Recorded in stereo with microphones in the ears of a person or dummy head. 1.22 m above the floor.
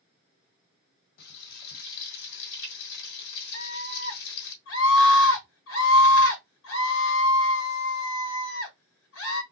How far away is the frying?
About 1.7 m.